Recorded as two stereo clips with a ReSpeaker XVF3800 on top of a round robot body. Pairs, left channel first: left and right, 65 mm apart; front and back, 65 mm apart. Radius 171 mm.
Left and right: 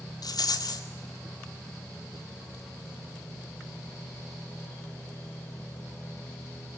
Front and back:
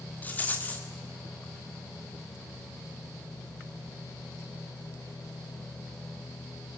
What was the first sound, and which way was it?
A rattle, 70° left.